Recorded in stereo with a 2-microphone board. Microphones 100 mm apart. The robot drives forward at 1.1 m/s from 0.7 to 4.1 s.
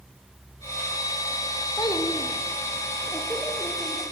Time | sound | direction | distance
1.8 | a child speaking | 40° left (ahead or behind) | 1.1 m